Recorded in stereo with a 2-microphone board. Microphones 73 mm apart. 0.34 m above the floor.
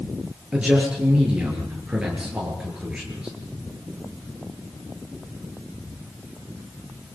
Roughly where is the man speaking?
Centre.